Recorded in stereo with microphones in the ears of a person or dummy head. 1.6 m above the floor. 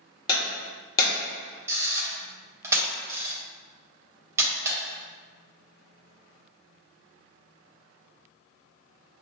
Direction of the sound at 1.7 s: 10° right (ahead or behind).